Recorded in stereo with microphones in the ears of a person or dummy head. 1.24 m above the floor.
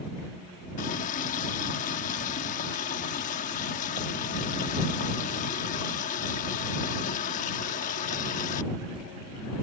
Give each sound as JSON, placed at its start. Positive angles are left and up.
{"t": 0.8, "sound": "a running tap", "side_deg": 40}